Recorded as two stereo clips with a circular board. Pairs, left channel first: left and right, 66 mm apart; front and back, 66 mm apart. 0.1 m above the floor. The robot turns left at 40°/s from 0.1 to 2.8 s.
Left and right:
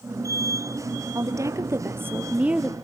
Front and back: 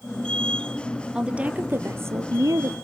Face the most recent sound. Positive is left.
turn(degrees=-170)